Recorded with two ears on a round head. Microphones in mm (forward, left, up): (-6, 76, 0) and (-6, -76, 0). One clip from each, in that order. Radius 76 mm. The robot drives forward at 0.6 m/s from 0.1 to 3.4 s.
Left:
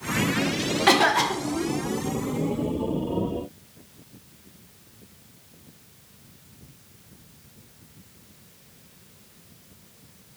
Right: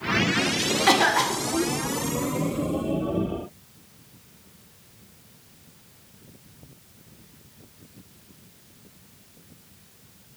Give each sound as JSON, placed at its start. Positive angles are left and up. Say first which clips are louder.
{"t": 0.9, "sound": "a cough", "louder": "left 1 dB", "side_deg": 0, "distance_m": 0.7}